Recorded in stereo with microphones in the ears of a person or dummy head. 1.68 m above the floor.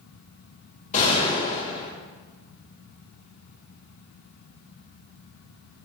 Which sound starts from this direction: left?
A gunshot, at 0.9 s.